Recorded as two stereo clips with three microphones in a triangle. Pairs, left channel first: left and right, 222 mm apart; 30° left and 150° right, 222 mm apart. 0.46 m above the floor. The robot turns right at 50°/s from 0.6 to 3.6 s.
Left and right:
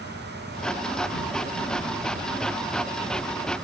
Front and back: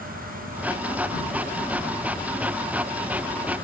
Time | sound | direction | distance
0.0 | an insect | 30° left | 2.5 m